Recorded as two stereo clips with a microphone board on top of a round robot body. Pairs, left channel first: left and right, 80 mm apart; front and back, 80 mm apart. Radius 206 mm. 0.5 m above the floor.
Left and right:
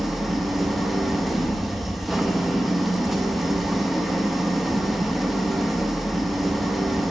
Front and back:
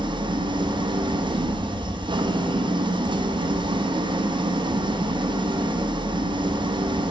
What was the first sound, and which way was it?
An engine running, straight behind.